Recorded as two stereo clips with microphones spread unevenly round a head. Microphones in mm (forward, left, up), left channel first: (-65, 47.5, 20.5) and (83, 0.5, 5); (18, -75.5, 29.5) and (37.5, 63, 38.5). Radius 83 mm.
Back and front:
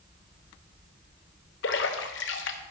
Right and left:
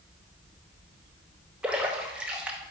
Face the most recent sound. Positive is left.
turn(degrees=165)